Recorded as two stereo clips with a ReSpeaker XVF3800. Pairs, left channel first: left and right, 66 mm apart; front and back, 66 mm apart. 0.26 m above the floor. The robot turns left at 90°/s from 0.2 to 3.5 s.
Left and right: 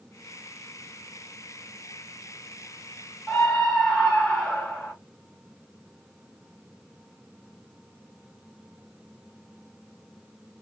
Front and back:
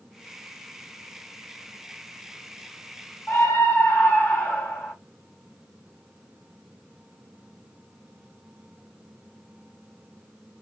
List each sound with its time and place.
3.3 s a scream: 25° left, 1.5 m; by 4.9 s 5° left, 1.5 m